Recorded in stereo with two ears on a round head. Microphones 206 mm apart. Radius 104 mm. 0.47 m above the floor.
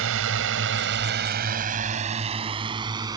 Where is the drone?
65° right (ahead or behind); by 3.2 s 15° right (ahead or behind).